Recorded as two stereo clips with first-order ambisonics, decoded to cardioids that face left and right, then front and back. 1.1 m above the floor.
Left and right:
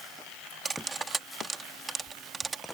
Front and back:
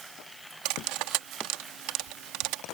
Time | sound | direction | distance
0.7 | cutlery clinking | 165° right | ?